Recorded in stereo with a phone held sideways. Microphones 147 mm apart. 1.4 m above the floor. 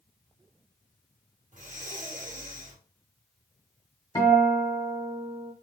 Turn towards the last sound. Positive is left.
turn(degrees=25)  # may be behind; listen again after turning